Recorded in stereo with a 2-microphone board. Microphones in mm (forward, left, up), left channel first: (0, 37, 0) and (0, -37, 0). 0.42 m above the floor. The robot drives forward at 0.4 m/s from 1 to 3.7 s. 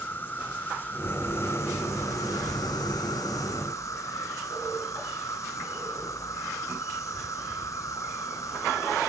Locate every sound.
0.0 s an insect: 30° left (ahead or behind), 0.9 m; by 9.1 s 45° left (ahead or behind), 0.6 m